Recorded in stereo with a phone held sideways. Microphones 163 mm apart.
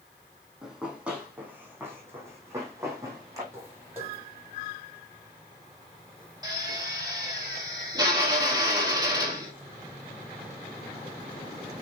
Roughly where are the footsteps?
Centre.